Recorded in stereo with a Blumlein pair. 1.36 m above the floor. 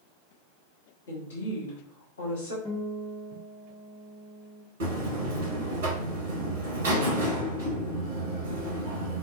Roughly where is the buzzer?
Ahead right.